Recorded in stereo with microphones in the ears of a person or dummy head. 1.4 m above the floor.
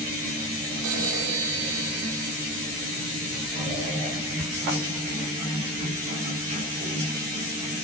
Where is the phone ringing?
85° right, 3.5 m.